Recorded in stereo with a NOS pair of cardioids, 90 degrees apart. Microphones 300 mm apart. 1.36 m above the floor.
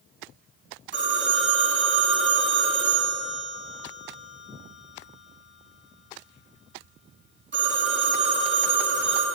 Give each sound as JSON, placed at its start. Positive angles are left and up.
{"t": 0.9, "sound": "a phone ringing", "azimuth_deg": -40, "distance_m": 2.0}